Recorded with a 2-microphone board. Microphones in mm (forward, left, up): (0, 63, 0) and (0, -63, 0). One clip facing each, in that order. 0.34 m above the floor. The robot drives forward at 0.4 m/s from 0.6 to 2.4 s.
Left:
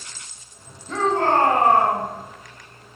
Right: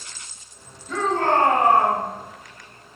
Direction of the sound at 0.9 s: 30° left (ahead or behind).